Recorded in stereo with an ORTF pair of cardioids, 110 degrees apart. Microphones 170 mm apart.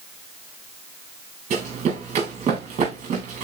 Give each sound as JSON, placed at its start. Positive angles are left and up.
{"t": 1.5, "sound": "running footsteps", "azimuth_deg": -40, "distance_m": 4.0}